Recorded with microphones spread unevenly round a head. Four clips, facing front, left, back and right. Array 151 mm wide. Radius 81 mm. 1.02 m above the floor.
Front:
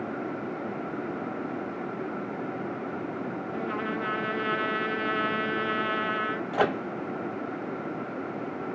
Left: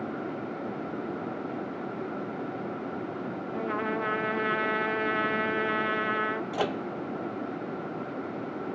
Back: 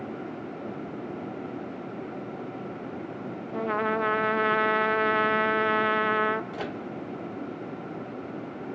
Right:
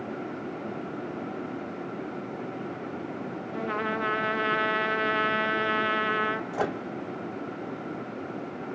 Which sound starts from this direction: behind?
A trumpet, at 3.5 s.